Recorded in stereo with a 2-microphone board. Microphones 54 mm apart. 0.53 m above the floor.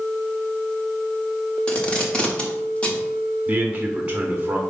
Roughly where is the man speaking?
Right.